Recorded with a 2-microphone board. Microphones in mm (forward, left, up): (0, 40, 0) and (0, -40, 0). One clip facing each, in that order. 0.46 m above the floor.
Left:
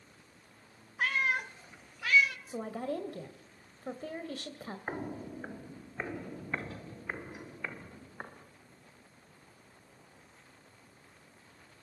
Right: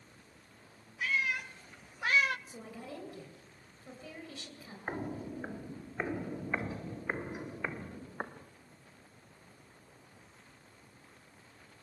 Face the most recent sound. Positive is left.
turn(degrees=-25)  # may be behind; listen again after turning